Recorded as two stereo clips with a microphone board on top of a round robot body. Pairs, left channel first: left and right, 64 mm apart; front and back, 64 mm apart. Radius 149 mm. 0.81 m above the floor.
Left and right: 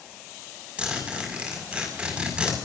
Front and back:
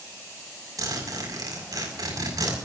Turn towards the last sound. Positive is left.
turn(degrees=-160)